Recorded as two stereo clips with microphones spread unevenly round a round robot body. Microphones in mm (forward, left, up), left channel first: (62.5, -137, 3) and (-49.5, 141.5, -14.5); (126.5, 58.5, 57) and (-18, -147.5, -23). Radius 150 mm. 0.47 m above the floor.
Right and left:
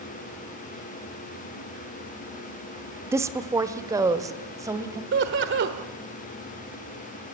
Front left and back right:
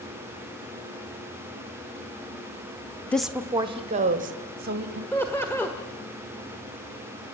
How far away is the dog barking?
No dog barking in this recording.